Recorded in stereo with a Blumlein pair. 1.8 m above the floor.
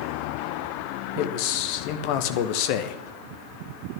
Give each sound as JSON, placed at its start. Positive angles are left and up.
{"t": 1.2, "sound": "a man speaking", "azimuth_deg": 45, "distance_m": 1.5}